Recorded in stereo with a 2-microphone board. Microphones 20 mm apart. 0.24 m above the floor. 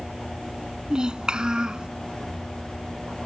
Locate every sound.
0.9 s a child speaking: 40° right (ahead or behind)